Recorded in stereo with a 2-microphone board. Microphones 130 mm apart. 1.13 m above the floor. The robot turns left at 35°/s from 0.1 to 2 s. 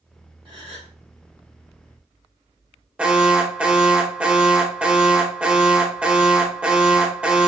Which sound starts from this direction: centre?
An alarm, at 3.0 s.